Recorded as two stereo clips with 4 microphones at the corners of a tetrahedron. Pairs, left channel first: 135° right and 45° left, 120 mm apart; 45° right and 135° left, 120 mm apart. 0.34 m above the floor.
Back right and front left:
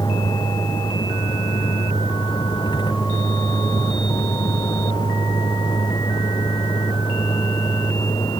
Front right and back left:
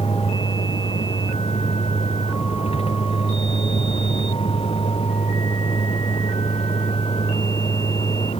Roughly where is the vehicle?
Right.